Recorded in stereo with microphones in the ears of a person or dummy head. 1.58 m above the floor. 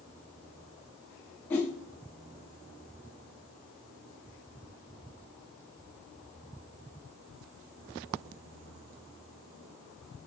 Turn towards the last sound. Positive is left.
turn(degrees=10)  # may be behind; listen again after turning